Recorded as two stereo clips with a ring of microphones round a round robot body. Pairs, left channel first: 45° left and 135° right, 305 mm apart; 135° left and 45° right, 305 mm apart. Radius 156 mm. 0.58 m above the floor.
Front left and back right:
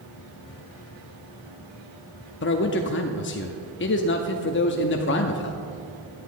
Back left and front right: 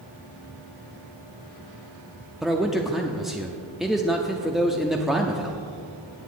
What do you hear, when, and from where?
2.4 s a man speaking: 45° left, 0.7 m